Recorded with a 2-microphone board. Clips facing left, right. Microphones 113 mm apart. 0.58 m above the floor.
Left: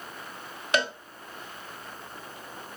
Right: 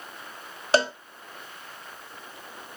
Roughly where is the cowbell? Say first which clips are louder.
Right 5 dB; right.